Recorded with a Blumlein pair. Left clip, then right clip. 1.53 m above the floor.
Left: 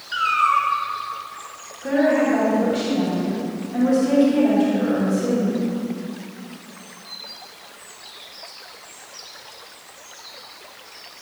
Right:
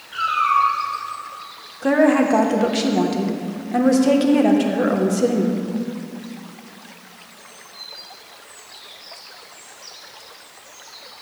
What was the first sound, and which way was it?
A cat meowing, 55° left.